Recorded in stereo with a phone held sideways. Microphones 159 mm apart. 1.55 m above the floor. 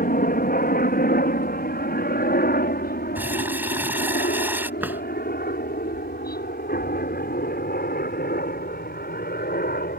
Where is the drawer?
10° right (ahead or behind).